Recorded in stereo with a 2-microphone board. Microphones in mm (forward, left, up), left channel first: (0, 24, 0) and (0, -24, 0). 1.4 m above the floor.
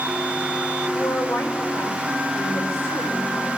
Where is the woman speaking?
85° left, 8 m.